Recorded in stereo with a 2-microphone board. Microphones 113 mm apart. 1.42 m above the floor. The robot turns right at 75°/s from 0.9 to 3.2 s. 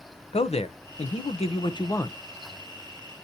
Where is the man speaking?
70° left, 0.8 m; by 2.2 s 165° left, 0.8 m.